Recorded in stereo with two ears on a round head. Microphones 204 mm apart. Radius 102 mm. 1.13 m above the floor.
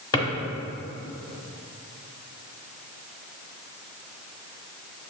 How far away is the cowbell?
No cowbell in this recording.